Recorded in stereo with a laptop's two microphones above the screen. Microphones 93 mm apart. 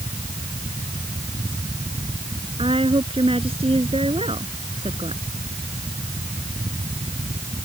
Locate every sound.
0.0 s a fan: 60° right (ahead or behind)
2.6 s a woman speaking: 80° right